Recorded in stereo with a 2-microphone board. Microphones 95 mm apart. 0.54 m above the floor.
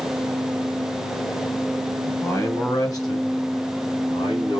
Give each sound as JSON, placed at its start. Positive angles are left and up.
{"t": 2.1, "sound": "a man speaking", "side_deg": 30, "distance_m": 5.0}